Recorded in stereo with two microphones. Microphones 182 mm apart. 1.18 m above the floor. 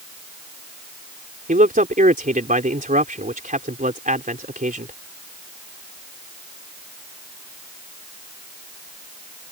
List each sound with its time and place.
1.5 s a man speaking: 45° right (ahead or behind)